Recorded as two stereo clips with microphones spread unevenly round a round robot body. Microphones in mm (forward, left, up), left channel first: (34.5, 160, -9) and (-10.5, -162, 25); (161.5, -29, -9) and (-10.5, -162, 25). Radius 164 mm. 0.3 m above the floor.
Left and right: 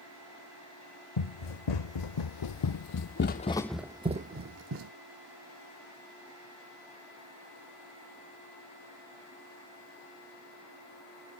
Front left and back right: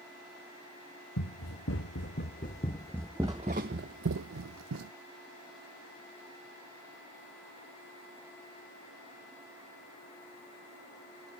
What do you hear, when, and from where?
1.2 s running footsteps: 85° left, 1.3 m; by 4.9 s 145° right, 0.9 m